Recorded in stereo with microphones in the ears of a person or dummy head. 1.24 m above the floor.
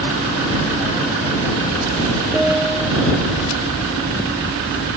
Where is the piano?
Centre (ahead or behind).